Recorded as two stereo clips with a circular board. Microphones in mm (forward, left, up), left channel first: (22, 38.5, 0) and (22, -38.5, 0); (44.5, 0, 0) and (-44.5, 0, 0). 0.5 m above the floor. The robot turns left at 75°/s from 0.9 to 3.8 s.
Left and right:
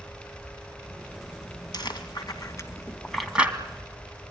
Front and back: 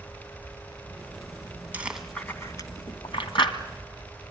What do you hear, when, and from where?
1.7 s chewing: 110° left, 2 m; by 3.5 s 25° right, 2 m